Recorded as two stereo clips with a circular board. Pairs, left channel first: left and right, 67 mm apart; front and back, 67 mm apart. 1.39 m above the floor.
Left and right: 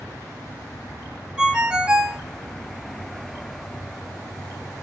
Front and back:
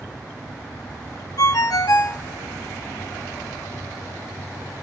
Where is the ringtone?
15° right, 0.9 m.